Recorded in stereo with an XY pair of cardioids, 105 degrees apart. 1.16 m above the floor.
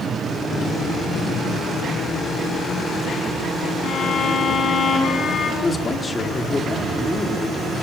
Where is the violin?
60° left, 7.5 m.